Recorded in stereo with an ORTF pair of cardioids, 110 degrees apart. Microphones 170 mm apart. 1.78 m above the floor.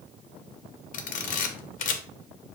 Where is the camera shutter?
50° left, 0.8 m.